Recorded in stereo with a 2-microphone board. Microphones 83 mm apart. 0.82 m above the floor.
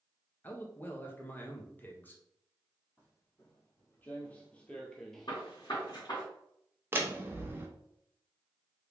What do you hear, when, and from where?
0.4 s a man speaking: 20° left (ahead or behind), 0.7 m
3.0 s footsteps: 25° left (ahead or behind), 1.4 m; by 5.4 s centre (ahead or behind), 0.8 m
5.3 s a gunshot: 55° left (ahead or behind), 1.8 m
6.9 s a door slam: 25° right (ahead or behind), 0.6 m